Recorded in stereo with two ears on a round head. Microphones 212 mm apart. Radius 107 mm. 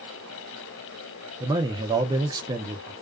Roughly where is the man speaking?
Centre.